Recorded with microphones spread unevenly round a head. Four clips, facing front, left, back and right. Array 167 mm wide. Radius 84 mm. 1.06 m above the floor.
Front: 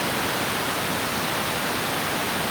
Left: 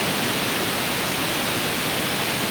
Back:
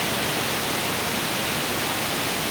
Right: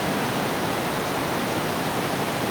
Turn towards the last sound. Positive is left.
No sound to turn to.